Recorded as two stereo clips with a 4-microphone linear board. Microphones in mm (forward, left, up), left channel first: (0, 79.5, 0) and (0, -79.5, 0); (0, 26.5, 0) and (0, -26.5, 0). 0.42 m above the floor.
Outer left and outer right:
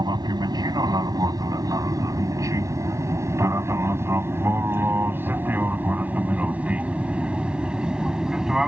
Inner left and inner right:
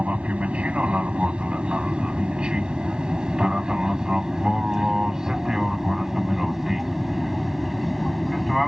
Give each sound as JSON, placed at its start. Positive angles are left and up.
{"t": 0.0, "sound": "an aircraft", "side_deg": -25}